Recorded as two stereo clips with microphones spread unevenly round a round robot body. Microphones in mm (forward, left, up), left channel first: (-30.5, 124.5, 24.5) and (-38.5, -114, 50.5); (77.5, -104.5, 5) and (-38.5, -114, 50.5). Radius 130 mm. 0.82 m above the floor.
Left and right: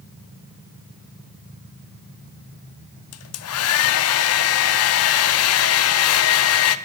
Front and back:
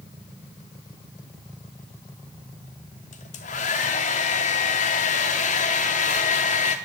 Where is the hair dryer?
50° left, 0.7 m.